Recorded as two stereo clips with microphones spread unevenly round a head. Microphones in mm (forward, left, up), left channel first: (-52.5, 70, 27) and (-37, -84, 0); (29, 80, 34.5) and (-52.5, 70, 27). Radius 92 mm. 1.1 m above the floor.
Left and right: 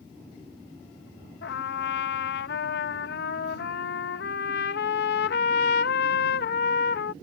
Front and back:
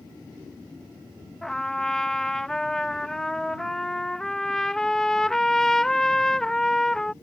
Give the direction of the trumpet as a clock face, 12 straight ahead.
9 o'clock.